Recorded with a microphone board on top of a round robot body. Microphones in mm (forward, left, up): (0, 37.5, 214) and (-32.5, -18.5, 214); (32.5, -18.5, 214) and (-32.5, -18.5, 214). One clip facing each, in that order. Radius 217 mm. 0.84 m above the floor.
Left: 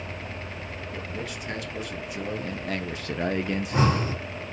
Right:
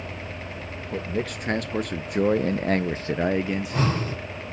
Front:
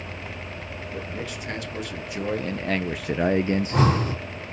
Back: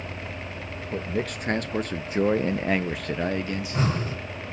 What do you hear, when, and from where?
0.9 s a man speaking: 150° right, 1.3 m; by 4.1 s 15° right, 0.8 m
3.5 s breathing: 10° right, 3 m